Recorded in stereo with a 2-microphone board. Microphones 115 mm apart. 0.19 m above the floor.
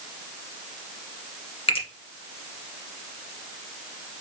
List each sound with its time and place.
1.7 s a finger snap: 55° left (ahead or behind), 1.5 m